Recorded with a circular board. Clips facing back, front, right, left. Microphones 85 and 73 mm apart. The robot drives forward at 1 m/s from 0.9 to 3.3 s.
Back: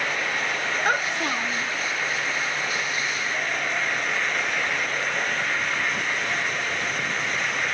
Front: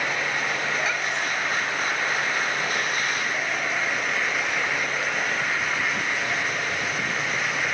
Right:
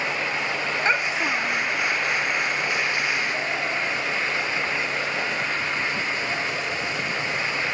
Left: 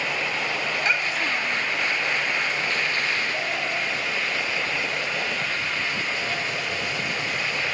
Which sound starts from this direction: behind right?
A child speaking, at 0.8 s.